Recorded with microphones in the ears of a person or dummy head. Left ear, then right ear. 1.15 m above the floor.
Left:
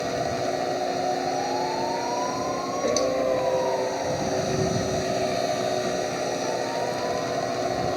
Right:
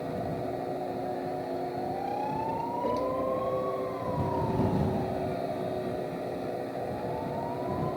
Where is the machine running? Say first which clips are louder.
Left 8 dB; 75° left (ahead or behind).